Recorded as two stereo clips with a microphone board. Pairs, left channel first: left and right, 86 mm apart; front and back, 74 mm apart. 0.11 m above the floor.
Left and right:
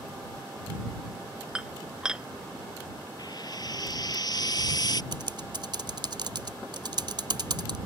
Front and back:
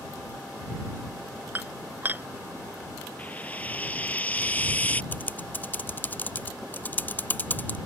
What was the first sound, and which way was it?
Dishes clattering, 160° right.